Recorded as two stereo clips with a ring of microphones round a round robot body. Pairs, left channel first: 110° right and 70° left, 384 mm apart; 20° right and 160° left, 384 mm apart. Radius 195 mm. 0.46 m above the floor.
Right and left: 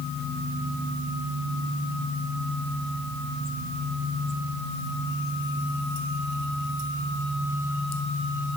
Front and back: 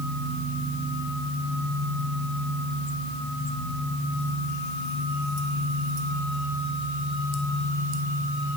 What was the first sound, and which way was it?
Only background noise.